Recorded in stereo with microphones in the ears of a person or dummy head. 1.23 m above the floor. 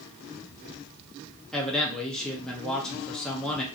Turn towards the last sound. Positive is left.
turn(degrees=0)  # may be behind; listen again after turning